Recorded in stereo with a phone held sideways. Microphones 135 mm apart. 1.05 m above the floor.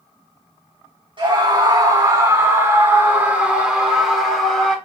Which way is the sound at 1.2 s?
35° right (ahead or behind).